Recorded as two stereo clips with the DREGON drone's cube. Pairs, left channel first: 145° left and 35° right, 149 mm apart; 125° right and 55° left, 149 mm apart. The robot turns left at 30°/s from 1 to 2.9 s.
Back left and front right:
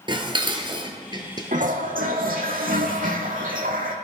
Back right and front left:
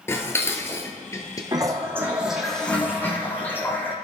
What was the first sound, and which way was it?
Dishes clattering, 60° right.